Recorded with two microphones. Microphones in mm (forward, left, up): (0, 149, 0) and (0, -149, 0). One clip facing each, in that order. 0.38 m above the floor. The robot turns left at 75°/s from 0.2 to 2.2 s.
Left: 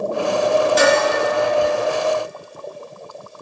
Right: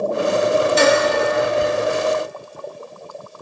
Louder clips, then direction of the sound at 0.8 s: Right 1 dB; 60° left (ahead or behind).